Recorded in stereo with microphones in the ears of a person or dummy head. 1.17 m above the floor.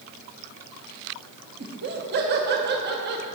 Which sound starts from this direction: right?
Laughter, at 1.6 s.